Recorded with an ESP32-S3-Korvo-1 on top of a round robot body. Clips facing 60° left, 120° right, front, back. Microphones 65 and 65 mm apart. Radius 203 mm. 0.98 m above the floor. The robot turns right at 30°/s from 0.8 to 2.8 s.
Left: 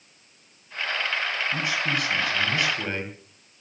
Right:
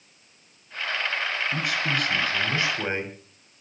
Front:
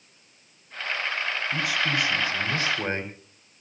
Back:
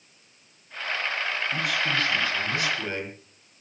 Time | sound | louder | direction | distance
1.5 | a man speaking | even, front 1 dB | 90° right | 5 m